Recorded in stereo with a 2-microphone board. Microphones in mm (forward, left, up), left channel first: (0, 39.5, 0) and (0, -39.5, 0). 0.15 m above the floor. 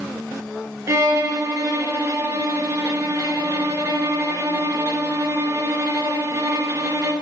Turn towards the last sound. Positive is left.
turn(degrees=-40)  # may be behind; listen again after turning